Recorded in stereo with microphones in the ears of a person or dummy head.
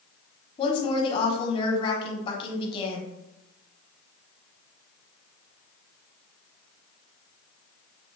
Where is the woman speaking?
30° left (ahead or behind), 0.8 m.